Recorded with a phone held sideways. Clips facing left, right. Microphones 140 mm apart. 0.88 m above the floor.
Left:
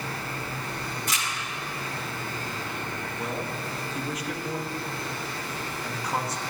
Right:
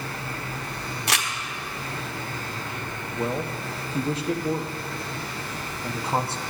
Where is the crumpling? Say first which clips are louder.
Right 7 dB; 75° right (ahead or behind), 1.0 m.